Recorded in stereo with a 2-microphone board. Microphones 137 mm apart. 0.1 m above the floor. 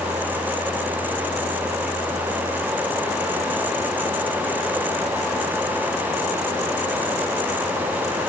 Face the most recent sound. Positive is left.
No sound to turn to.